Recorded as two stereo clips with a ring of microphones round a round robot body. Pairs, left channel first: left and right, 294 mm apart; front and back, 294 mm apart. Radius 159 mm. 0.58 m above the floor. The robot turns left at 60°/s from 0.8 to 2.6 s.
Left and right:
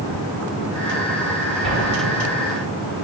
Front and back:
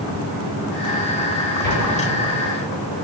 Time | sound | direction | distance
1.6 | an explosion | straight ahead | 4.5 m